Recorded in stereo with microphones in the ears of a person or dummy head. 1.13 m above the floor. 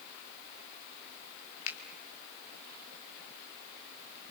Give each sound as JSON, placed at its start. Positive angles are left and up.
{"t": 1.7, "sound": "a finger snap", "side_deg": 75, "distance_m": 3.0}